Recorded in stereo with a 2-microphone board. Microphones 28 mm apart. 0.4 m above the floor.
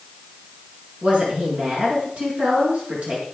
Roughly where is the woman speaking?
Right.